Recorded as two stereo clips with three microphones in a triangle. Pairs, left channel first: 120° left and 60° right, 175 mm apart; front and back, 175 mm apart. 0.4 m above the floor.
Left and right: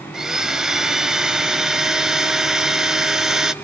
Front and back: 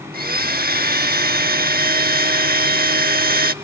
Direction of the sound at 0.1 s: 145° right.